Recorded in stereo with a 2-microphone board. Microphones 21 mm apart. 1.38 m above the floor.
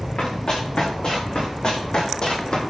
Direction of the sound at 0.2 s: 50° left (ahead or behind).